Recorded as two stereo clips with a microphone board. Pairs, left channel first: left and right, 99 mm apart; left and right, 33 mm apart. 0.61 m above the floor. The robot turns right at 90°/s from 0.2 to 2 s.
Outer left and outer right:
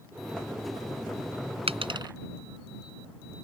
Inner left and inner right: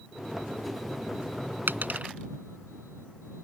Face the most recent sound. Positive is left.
turn(degrees=-50)  # may be behind; listen again after turning